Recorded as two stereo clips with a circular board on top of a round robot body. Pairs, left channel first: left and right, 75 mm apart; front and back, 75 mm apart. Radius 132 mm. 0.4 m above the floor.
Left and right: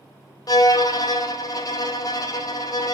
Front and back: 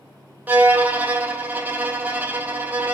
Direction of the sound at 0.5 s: 115° left.